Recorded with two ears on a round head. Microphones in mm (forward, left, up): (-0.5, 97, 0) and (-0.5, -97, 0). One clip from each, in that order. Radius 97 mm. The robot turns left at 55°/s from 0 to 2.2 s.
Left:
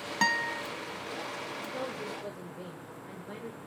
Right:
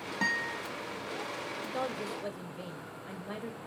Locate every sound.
0.2 s a guitar: 40° left (ahead or behind), 1.1 m; by 0.6 s 55° left (ahead or behind), 1.1 m
1.6 s a woman speaking: 120° right, 1.5 m; by 3.6 s 155° right, 1.5 m